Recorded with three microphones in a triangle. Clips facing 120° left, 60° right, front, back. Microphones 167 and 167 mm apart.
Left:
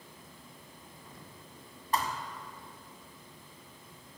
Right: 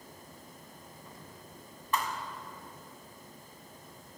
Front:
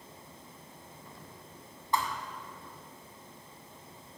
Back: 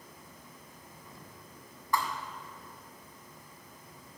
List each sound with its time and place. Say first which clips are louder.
1.9 s a thud: left 1 dB, even; 65° left, 1.5 m